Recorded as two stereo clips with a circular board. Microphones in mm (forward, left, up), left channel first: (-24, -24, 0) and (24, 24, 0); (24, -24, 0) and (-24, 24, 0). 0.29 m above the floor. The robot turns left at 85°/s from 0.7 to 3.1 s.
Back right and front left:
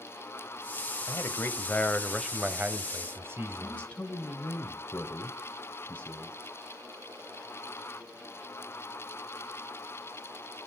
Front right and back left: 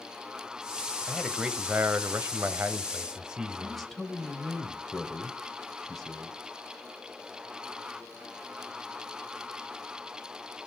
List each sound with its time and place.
1.1 s a man speaking: 125° right, 1.1 m; by 3.9 s 65° left, 1.1 m
3.6 s a man speaking: 125° right, 1.2 m